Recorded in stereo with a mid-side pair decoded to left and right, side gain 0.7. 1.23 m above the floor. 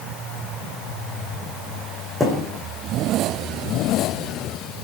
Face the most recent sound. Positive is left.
turn(degrees=5)